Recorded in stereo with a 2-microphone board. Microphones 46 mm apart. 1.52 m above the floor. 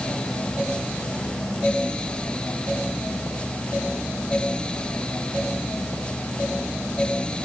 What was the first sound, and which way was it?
Only background noise.